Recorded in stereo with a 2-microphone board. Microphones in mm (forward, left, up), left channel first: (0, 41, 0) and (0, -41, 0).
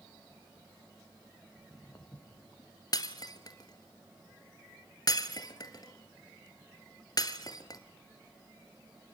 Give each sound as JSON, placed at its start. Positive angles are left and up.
{"t": 1.6, "sound": "footsteps", "side_deg": 55, "distance_m": 3.5}
{"t": 2.9, "sound": "breaking glass", "side_deg": 50, "distance_m": 1.5}